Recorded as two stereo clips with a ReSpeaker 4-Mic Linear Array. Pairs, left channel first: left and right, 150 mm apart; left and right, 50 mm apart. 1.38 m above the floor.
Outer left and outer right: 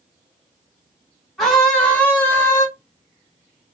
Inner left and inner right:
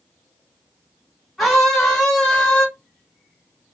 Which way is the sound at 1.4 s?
Centre (ahead or behind).